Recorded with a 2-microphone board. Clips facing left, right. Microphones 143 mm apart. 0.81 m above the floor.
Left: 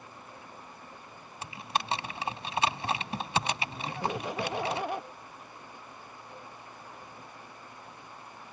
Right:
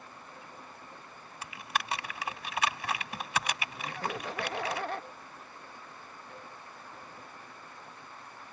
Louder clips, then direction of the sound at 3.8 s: Left 3 dB; 15° left (ahead or behind).